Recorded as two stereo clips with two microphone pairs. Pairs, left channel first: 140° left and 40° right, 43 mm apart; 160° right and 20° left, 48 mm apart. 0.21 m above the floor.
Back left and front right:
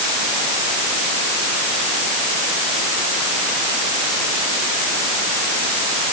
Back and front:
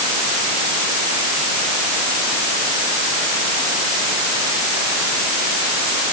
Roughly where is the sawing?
I don't hear sawing.